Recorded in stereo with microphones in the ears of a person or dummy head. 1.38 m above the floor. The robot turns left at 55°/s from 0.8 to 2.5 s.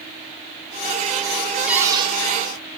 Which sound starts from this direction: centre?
A cupboard door, at 1.7 s.